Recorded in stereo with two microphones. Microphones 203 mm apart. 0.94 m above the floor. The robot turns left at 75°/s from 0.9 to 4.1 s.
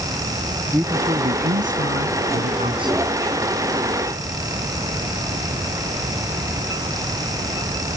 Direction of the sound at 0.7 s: 10° right.